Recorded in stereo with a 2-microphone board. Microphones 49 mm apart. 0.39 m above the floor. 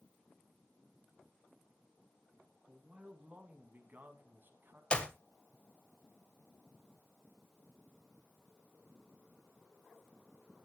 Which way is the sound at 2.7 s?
25° right (ahead or behind).